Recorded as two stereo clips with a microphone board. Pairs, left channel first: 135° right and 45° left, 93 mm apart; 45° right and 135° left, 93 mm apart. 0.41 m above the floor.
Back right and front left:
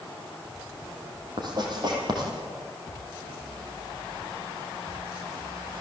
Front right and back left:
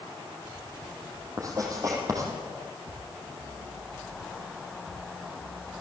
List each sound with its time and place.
1.4 s writing: 85° left, 5.5 m